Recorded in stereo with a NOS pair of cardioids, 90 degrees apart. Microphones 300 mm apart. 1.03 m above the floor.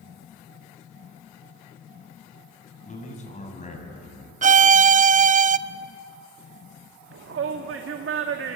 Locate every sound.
2.9 s a man speaking: 25° left, 7.5 m
4.4 s a violin: 25° right, 0.6 m
7.1 s a shout: 50° right, 1.8 m